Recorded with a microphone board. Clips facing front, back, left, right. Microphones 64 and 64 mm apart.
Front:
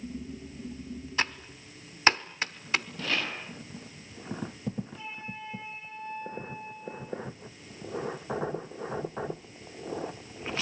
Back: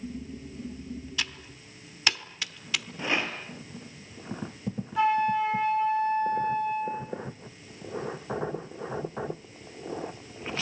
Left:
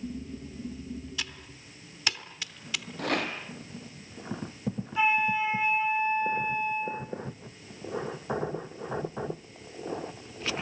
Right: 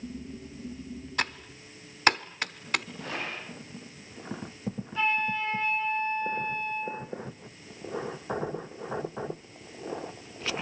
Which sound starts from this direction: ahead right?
Typing on a keyboard, at 1.2 s.